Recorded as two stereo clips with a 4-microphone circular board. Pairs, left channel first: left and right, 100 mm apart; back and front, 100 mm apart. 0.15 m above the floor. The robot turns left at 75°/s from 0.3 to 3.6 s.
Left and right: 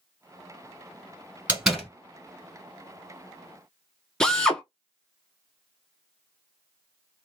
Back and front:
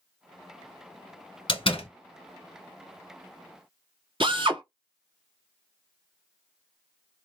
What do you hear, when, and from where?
1.5 s a door slam: 160° right, 1.8 m; by 1.9 s 170° left, 1.8 m
4.2 s a drill: 5° left, 0.8 m